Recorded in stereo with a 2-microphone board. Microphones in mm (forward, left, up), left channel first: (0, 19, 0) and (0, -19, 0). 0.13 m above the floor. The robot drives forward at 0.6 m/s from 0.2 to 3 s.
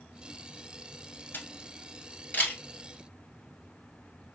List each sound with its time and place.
1.3 s a camera shutter: 50° left (ahead or behind), 1.3 m; by 2.6 s 35° left (ahead or behind), 1.7 m